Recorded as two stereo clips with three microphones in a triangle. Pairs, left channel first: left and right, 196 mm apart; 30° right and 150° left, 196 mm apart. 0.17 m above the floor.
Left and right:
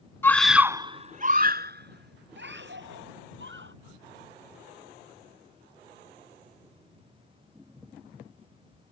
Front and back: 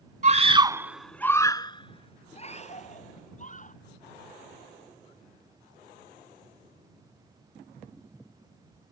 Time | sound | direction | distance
0.2 | a scream | 160° left | ?